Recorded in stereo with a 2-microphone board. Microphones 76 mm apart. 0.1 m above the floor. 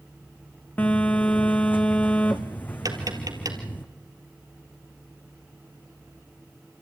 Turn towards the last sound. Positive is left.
turn(degrees=-55)  # may be behind; listen again after turning